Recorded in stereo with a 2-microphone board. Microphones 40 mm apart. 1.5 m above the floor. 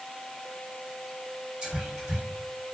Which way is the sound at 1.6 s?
25° right (ahead or behind).